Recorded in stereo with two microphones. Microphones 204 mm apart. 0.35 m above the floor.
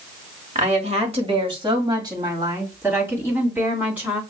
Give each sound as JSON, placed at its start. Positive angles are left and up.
{"t": 0.6, "sound": "a woman speaking", "side_deg": -35, "distance_m": 1.5}